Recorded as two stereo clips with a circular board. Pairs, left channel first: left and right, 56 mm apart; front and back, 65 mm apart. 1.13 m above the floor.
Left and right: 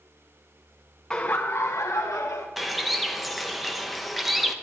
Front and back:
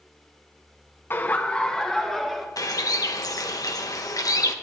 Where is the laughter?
20° left, 0.7 m; by 2.5 s 95° left, 1.8 m.